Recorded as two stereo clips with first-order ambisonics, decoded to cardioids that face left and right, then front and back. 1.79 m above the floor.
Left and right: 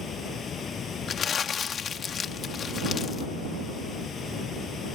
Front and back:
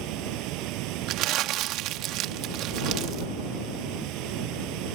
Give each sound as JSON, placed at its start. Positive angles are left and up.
{"t": 0.0, "sound": "running water", "azimuth_deg": 155}
{"t": 1.1, "sound": "crumpling", "azimuth_deg": 150}